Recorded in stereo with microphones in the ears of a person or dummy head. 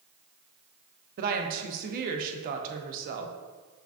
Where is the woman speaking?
50° right (ahead or behind), 0.5 m.